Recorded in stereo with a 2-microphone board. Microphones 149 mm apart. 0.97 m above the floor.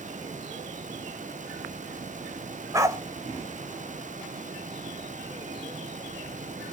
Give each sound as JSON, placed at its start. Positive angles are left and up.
{"t": 2.7, "sound": "a dog barking", "side_deg": -20, "distance_m": 1.6}